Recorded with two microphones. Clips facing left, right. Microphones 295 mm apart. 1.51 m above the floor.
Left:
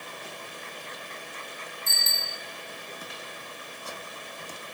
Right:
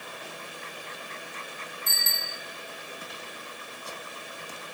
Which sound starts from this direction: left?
A bicycle bell, at 1.9 s.